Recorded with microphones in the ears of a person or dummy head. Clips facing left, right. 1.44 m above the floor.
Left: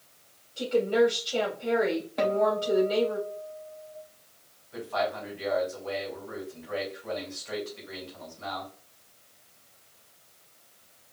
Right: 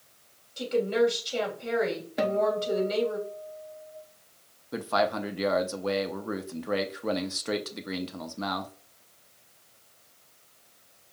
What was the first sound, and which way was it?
A woman speaking, 25° right (ahead or behind).